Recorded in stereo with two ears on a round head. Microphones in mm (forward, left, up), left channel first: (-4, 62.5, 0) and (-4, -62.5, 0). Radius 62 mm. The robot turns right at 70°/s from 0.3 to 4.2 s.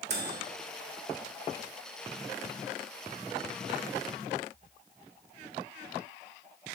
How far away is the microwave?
About 1.3 m.